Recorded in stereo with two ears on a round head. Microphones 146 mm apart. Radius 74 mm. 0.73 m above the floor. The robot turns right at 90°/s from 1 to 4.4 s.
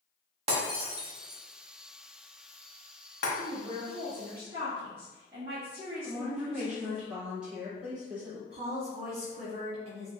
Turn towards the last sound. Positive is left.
turn(degrees=-40)  # may be behind; listen again after turning